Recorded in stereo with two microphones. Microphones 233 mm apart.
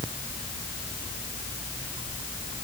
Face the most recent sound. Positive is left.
No sound to turn to.